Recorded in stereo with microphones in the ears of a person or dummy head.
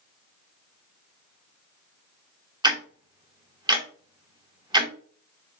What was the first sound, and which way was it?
Ticking, 20° right (ahead or behind).